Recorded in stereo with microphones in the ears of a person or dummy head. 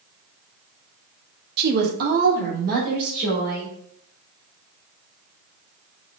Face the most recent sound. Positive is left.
turn(degrees=-50)  # may be behind; listen again after turning